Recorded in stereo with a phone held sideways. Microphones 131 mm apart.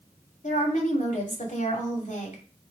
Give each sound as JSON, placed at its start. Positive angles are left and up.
{"t": 0.4, "sound": "a woman speaking", "side_deg": 75, "distance_m": 2.5}